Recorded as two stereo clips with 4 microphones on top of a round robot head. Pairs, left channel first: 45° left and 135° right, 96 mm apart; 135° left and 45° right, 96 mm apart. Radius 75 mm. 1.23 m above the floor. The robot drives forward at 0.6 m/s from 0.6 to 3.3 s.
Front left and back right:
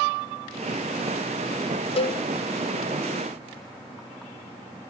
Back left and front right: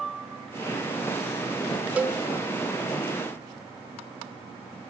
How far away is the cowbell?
About 0.6 m.